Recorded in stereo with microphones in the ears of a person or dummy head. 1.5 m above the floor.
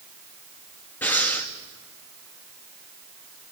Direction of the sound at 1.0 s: 10° left (ahead or behind).